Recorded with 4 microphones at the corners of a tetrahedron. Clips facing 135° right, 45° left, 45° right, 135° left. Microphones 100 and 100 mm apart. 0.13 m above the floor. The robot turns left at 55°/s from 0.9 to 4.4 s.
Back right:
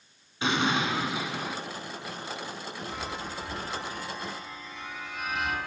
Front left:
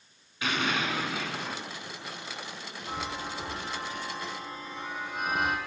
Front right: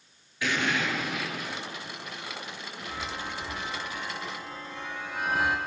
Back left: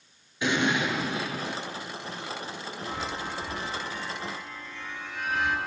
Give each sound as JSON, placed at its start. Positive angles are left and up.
{"t": 0.4, "sound": "an explosion", "azimuth_deg": 180, "distance_m": 1.4}
{"t": 2.9, "sound": "a chime", "azimuth_deg": 90, "distance_m": 3.0}